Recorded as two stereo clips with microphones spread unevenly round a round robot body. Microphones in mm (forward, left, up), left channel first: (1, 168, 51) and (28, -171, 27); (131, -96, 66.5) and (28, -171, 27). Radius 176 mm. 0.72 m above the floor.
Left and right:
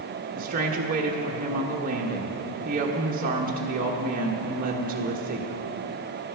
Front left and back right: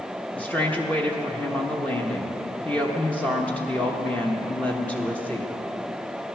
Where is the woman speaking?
65° right, 1.0 m.